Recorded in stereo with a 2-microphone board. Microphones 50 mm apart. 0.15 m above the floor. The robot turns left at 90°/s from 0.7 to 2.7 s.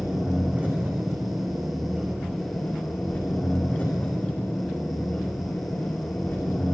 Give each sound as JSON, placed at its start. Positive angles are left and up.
{"t": 0.0, "sound": "an engine running", "azimuth_deg": -30, "distance_m": 9.0}